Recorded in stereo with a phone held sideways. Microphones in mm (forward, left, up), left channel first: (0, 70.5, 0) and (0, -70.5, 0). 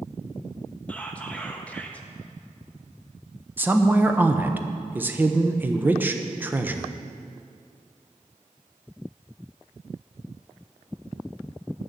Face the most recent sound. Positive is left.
turn(degrees=-15)  # may be behind; listen again after turning